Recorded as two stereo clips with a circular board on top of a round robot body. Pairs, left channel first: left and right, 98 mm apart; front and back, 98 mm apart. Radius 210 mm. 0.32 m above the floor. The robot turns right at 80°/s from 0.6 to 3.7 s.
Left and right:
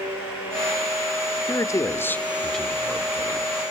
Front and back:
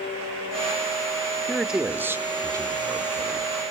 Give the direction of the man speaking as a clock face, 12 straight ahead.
9 o'clock.